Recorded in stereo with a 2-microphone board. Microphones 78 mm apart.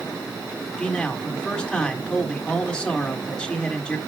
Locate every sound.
0.8 s a man speaking: 15° left (ahead or behind), 3.5 m